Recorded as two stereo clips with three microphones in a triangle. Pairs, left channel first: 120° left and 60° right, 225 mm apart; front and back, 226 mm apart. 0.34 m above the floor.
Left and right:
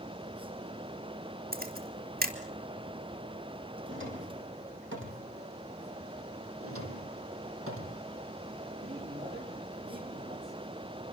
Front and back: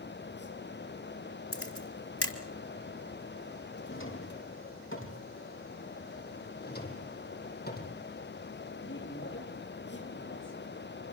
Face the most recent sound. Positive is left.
turn(degrees=-25)